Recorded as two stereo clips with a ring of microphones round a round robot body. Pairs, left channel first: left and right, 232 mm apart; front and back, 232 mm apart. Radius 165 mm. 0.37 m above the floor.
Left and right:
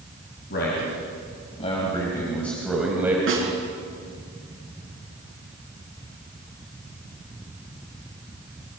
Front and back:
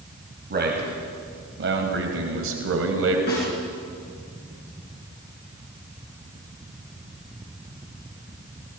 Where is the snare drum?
60° right, 6 m.